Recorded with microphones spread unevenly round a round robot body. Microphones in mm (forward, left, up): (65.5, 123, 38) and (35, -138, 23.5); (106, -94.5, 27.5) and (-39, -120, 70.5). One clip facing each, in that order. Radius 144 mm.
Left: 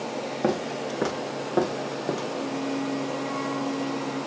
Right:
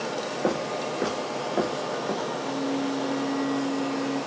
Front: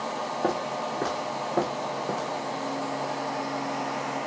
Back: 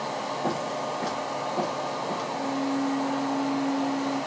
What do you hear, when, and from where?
0.4 s footsteps: 70° left, 3.5 m; by 2.2 s 55° left, 3 m
2.3 s a flute: 110° left, 1.8 m